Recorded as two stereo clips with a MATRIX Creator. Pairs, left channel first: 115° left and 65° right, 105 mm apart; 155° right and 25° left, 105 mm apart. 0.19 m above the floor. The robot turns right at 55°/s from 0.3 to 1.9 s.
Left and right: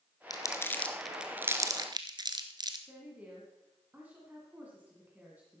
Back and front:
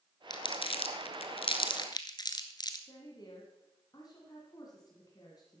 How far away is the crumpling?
About 1.1 m.